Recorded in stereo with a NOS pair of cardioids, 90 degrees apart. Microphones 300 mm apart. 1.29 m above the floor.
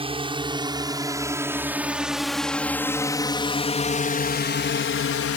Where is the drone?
20° right; by 5.4 s 55° left.